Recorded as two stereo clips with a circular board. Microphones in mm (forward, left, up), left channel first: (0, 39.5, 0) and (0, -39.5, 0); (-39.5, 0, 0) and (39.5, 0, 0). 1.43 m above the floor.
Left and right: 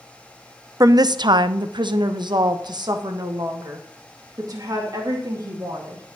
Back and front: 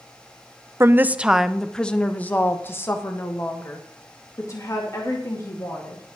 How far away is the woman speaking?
About 0.6 m.